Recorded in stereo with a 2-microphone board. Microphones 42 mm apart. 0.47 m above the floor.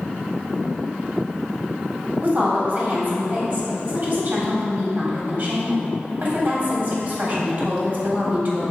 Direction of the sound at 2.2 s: 45° right (ahead or behind).